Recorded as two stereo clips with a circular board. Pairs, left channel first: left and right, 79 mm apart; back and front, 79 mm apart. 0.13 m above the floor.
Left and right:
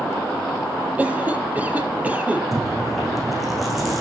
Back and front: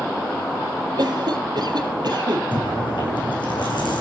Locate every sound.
1.0 s a cough: 20° right, 4 m
2.5 s chewing: straight behind, 8.5 m